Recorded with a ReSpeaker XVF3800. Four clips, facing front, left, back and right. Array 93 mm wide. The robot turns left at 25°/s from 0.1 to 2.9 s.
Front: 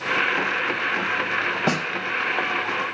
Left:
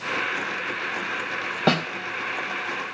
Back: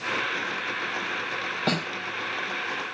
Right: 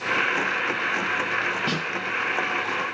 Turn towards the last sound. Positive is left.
turn(degrees=40)